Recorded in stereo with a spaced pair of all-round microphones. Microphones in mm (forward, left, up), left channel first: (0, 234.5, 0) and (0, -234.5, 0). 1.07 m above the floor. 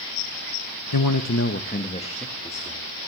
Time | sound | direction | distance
0.9 | a man speaking | 50° left (ahead or behind) | 1.0 m